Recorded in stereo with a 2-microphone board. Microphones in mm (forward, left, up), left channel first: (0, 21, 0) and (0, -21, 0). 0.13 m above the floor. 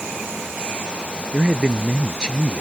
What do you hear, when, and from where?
1.3 s a man speaking: 20° right (ahead or behind)